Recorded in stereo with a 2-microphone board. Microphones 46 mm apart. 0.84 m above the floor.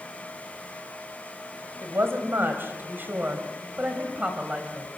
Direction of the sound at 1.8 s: 65° right (ahead or behind).